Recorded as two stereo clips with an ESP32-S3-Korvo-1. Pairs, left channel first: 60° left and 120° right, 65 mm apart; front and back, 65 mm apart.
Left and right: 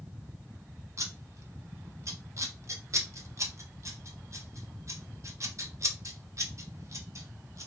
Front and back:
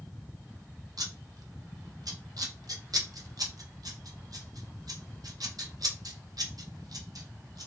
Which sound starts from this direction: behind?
Scissors, at 1.0 s.